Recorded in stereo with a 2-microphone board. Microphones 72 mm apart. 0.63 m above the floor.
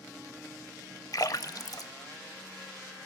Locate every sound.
1.1 s a splash: 55° left (ahead or behind), 0.5 m